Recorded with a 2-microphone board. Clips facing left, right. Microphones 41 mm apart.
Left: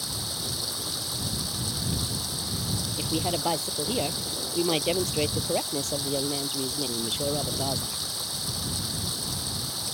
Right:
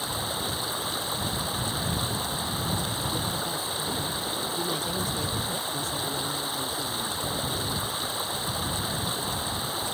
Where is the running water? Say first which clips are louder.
Right 4 dB; 30° right (ahead or behind).